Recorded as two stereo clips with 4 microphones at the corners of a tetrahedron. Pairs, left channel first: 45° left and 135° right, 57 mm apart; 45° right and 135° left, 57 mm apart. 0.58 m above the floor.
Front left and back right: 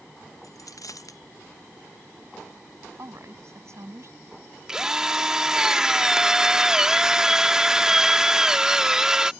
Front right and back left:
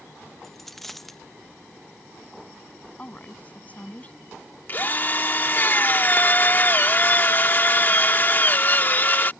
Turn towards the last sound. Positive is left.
turn(degrees=-65)